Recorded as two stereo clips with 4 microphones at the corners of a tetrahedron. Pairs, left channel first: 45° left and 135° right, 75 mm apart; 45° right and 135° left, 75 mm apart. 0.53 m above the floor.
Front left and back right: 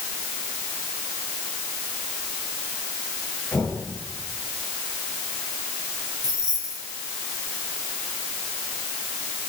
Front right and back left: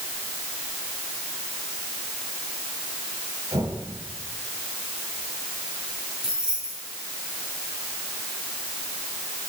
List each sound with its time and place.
3.5 s knocking: 120° left, 7.5 m
6.2 s keys jangling: 145° right, 7 m